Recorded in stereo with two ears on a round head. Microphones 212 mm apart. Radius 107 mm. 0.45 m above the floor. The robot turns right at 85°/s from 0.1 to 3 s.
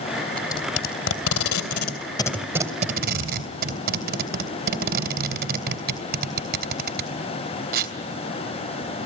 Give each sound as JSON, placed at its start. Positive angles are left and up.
{"t": 0.4, "sound": "tape being pulled", "side_deg": 5, "distance_m": 3.0}